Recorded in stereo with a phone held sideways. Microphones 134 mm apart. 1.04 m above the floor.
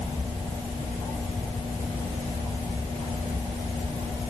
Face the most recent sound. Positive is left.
No sound to turn to.